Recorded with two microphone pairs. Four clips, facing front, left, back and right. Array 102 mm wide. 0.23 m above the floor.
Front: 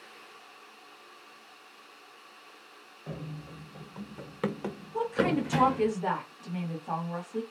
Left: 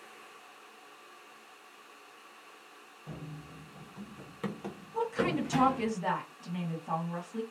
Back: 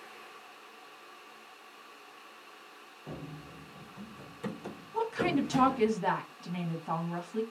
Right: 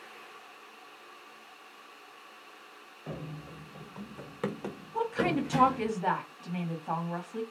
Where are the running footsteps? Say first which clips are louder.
Right 4 dB, front 3 dB; 75° right, 1.0 m; by 5.9 s 20° left, 1.1 m.